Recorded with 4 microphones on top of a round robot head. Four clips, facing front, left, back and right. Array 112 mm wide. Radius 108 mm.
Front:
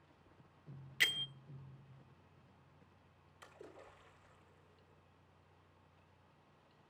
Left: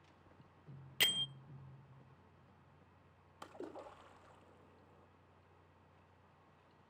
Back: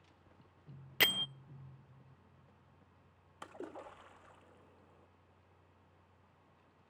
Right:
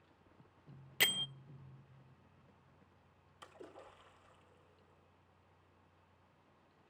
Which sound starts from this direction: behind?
A bell, at 1.0 s.